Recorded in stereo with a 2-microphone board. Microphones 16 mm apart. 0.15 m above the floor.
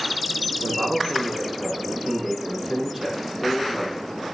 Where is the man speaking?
10° right (ahead or behind), 6 m.